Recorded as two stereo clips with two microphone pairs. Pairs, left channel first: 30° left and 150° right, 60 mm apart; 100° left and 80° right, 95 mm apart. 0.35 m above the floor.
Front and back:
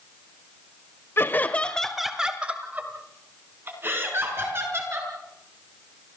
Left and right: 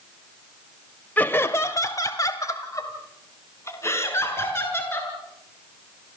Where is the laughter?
35° left, 1.3 m; by 5.1 s 160° left, 5 m.